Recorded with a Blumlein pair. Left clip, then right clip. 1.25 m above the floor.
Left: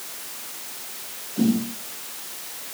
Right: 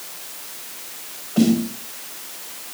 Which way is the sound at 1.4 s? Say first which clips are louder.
Right 5 dB; 55° right.